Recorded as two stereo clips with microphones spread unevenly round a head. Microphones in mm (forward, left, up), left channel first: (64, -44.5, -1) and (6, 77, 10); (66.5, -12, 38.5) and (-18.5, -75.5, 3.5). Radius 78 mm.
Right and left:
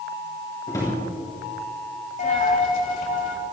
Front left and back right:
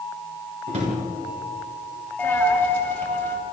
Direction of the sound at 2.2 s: 35° right.